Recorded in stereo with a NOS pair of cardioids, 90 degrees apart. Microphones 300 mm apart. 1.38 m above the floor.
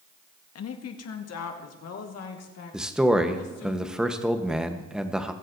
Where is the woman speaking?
60° left, 1.2 m; by 3.7 s 55° left, 3 m.